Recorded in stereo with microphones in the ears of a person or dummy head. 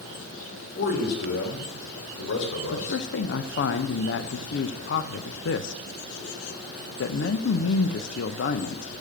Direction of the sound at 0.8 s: 50° left (ahead or behind).